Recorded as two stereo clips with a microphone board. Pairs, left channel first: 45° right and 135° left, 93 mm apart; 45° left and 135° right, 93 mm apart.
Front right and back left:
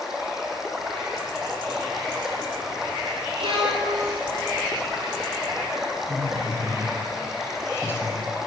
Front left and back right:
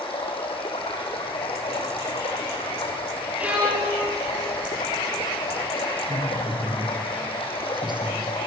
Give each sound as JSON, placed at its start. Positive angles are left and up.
{"t": 0.0, "sound": "running water", "azimuth_deg": 50, "distance_m": 3.5}
{"t": 3.4, "sound": "a violin", "azimuth_deg": 150, "distance_m": 5.0}
{"t": 6.1, "sound": "a woman speaking", "azimuth_deg": -110, "distance_m": 4.5}